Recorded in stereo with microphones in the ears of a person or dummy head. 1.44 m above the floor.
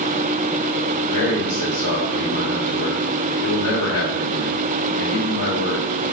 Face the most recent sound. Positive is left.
turn(degrees=75)  # may be behind; listen again after turning